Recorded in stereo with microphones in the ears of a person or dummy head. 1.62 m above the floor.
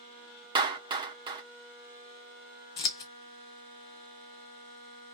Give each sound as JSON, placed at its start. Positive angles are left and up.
{"t": 0.6, "sound": "a clap", "side_deg": -25, "distance_m": 0.9}
{"t": 2.8, "sound": "scissors", "side_deg": 25, "distance_m": 0.7}